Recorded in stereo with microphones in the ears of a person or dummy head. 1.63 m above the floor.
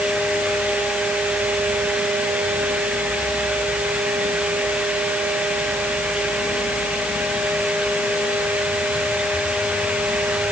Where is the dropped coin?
No dropped coin in this recording.